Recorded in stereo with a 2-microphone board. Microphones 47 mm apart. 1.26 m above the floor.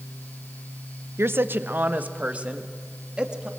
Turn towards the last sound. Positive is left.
turn(degrees=-20)  # may be behind; listen again after turning